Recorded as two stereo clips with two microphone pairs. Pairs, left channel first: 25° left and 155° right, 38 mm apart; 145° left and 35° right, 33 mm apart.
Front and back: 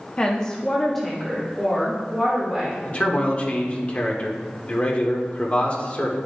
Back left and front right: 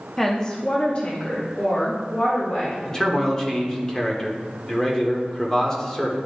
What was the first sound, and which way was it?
A woman speaking, 70° left.